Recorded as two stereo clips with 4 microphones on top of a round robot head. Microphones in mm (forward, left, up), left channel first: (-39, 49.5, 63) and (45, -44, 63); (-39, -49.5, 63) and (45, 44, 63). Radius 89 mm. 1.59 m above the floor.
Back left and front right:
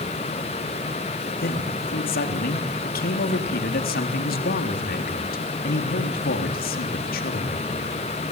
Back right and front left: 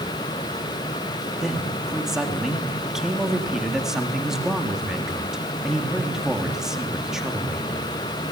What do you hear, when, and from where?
1.4 s a man speaking: 135° left, 3.5 m